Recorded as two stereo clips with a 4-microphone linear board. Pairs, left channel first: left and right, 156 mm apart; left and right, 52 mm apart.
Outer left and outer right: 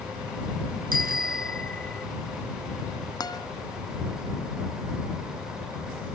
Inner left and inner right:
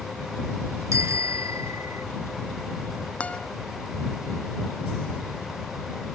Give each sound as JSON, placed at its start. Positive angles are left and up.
{"t": 0.9, "sound": "a bicycle bell", "side_deg": -70}
{"t": 3.2, "sound": "a guitar", "side_deg": 25}